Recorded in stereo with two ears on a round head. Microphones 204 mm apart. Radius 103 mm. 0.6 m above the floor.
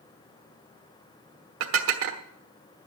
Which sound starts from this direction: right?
Dishes clattering, at 1.6 s.